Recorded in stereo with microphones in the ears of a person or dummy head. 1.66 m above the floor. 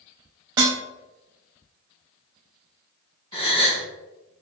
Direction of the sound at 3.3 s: 30° left (ahead or behind).